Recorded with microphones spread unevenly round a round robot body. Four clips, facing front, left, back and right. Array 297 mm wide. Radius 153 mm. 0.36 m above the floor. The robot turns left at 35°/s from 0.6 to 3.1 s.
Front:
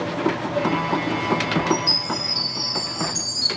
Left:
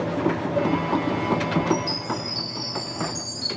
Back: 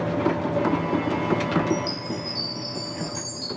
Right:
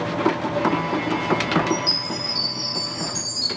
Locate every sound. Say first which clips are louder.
1.7 s a chime: left 1 dB, front 3 dB; 120° right, 1.4 m; by 3.5 s 165° right, 1.4 m